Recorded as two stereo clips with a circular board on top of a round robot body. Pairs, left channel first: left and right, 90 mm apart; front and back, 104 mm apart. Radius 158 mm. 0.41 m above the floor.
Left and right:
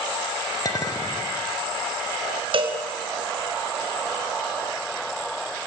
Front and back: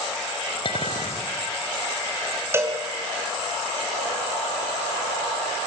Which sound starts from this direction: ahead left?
A clink, at 0.7 s.